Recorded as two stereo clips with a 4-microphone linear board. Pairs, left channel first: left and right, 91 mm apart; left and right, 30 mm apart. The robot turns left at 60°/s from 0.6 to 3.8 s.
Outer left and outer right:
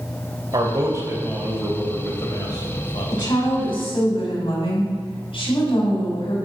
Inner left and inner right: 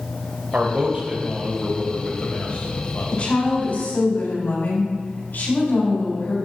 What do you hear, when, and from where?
0.5 s a man speaking: 120° right, 2 m; by 3.2 s 80° left, 2 m
3.1 s a woman speaking: 130° left, 3.5 m; by 6.4 s 90° left, 3.5 m